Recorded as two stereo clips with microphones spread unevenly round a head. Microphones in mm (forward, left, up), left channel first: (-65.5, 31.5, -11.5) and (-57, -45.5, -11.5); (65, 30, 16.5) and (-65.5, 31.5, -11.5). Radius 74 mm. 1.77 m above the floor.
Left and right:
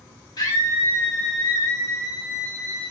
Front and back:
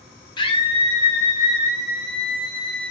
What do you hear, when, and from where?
0.4 s a scream: 45° left, 1.1 m; by 2.9 s 10° right, 3 m